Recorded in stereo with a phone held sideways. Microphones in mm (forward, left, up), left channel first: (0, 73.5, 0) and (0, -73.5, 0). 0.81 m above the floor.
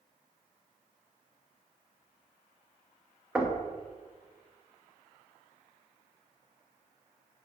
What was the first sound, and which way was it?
Knocking, 5° right (ahead or behind).